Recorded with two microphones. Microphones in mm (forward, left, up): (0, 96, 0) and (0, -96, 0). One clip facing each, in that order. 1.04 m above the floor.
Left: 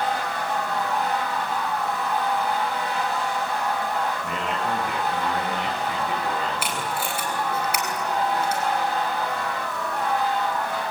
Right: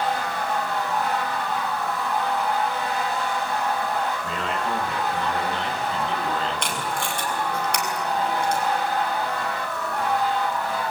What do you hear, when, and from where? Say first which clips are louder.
4.2 s a man speaking: even; 15° left (ahead or behind), 9 m; by 6.9 s 5° left (ahead or behind), 6.5 m
6.6 s tape being pulled: even; 5° left (ahead or behind), 5.5 m